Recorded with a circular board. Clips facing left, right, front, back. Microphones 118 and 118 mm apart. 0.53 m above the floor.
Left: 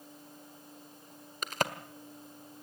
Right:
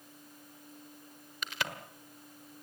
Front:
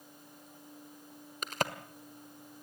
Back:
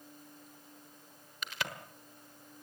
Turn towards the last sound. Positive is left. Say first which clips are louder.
# left 6 dB, front 6 dB
turn(degrees=45)